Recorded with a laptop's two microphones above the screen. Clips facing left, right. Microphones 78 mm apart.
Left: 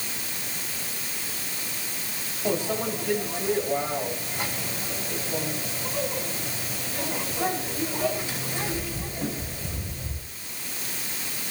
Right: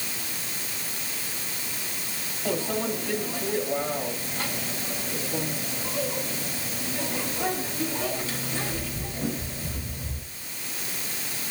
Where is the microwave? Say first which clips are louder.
Left 1 dB; 20° left (ahead or behind), 6.5 m.